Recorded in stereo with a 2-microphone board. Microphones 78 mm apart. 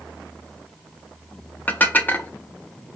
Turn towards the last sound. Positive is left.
turn(degrees=20)  # may be behind; listen again after turning